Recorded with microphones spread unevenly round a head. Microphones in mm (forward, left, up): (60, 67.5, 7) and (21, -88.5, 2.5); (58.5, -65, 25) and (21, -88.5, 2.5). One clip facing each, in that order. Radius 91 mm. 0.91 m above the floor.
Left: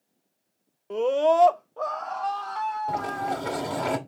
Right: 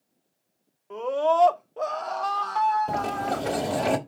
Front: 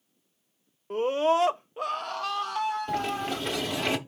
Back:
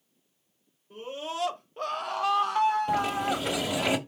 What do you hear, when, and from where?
0.9 s a scream: 50° left, 0.6 m; by 3.5 s 120° right, 1.4 m
2.9 s a sliding door: 50° right, 1.1 m